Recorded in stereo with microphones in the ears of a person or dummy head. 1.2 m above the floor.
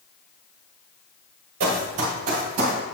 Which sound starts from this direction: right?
Running footsteps, at 1.6 s.